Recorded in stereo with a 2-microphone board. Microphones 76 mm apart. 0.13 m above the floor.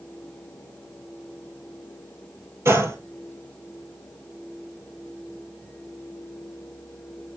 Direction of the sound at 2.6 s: 35° right (ahead or behind).